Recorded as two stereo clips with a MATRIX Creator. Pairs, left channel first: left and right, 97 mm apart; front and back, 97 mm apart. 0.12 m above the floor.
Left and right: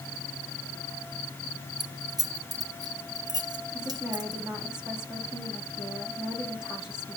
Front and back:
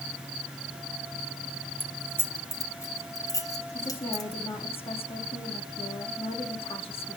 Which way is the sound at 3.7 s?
5° right.